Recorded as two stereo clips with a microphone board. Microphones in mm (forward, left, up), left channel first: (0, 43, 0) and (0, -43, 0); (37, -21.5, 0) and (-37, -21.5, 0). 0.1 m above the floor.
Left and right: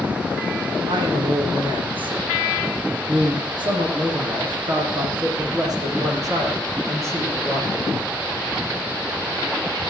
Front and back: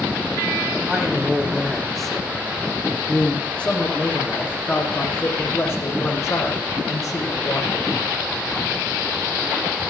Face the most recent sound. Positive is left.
turn(degrees=-30)